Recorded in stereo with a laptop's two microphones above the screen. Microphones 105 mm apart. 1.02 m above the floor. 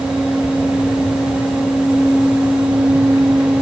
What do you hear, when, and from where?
0.0 s a fan: 10° right (ahead or behind), 2.5 m